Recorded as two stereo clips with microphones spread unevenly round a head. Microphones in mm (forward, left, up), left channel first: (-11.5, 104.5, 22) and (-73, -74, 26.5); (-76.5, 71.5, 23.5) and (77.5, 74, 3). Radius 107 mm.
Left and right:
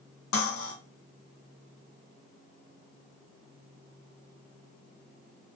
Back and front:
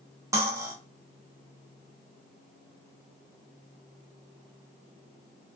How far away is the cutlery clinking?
About 1.0 m.